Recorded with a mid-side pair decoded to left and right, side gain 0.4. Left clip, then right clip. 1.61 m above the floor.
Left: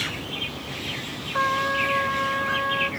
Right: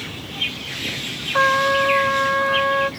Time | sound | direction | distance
1.3 | a trumpet | 45° right | 0.9 m